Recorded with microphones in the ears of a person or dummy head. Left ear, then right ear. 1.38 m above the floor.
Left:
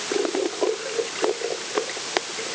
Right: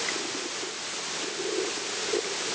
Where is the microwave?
No microwave in this recording.